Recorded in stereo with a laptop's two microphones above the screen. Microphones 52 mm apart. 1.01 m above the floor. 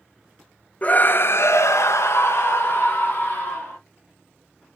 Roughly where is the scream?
Left.